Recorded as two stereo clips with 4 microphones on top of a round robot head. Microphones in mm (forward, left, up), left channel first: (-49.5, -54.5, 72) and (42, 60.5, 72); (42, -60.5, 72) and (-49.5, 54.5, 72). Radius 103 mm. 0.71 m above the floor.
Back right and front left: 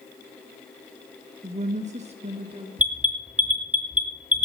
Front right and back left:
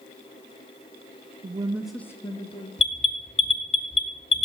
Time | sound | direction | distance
1.4 | a woman speaking | 95° left | 0.8 m
2.8 | an alarm | 25° right | 2 m